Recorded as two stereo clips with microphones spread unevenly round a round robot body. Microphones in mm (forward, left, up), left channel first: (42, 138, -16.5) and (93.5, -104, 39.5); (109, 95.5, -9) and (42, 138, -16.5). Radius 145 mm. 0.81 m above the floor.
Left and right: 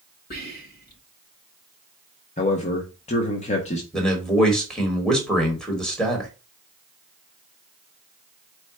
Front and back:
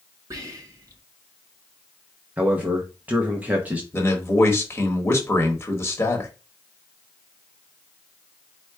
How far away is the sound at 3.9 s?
About 1.3 m.